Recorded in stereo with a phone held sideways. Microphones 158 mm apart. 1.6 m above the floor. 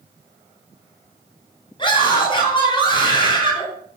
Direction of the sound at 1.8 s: 30° left (ahead or behind).